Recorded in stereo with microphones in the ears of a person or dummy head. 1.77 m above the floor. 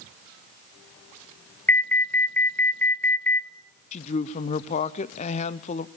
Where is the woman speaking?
40° left (ahead or behind), 0.8 m.